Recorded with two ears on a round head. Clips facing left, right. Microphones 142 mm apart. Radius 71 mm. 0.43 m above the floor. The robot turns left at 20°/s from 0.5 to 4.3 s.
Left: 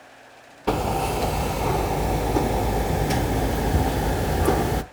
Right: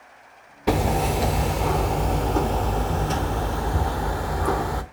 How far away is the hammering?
About 0.9 m.